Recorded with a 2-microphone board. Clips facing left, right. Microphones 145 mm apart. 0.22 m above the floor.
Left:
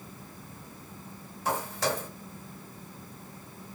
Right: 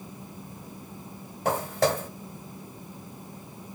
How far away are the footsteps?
About 3 m.